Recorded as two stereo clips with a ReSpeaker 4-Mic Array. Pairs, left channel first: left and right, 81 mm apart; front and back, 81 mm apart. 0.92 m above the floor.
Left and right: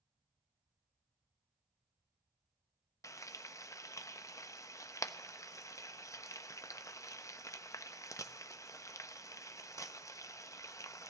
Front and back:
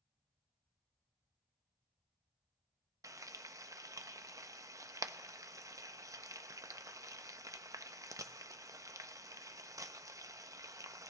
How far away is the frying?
About 0.5 m.